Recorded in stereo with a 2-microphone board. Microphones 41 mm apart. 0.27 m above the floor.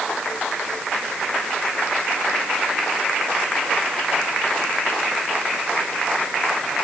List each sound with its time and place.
Only background noise.